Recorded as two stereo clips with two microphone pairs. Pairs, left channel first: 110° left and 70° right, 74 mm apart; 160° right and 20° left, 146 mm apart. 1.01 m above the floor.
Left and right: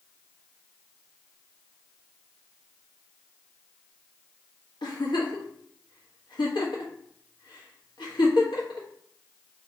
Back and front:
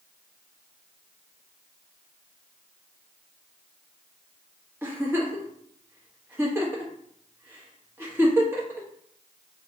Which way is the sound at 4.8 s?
95° left.